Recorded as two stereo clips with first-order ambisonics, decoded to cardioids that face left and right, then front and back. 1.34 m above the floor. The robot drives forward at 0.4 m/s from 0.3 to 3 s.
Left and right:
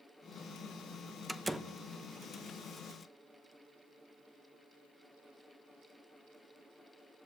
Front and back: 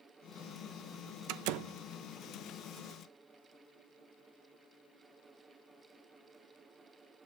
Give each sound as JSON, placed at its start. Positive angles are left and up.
{"t": 1.3, "sound": "a door slam", "azimuth_deg": -175, "distance_m": 0.7}